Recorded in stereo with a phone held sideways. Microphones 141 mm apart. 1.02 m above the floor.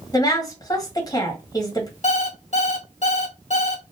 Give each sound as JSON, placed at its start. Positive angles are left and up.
{"t": 0.1, "sound": "a woman speaking", "side_deg": 25, "distance_m": 1.4}
{"t": 2.0, "sound": "an alarm clock", "side_deg": 55, "distance_m": 0.9}